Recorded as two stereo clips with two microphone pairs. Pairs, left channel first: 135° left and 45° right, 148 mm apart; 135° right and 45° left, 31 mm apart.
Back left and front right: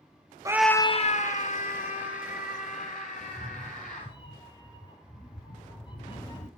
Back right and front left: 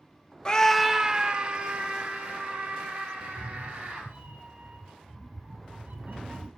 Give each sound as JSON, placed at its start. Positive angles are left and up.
{"t": 0.5, "sound": "a scream", "azimuth_deg": -95, "distance_m": 0.5}
{"t": 3.2, "sound": "a cat meowing", "azimuth_deg": 80, "distance_m": 3.0}